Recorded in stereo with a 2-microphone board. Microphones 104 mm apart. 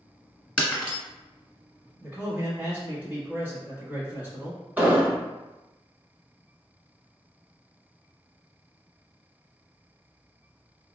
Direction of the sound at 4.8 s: 15° right (ahead or behind).